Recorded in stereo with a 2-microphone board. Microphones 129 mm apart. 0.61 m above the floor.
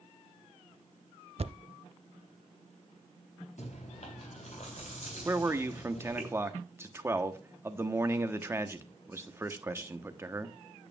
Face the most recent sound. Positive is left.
turn(degrees=-20)  # may be behind; listen again after turning